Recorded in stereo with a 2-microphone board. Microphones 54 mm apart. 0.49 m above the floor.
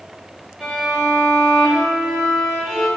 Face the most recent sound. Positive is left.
turn(degrees=0)  # may be behind; listen again after turning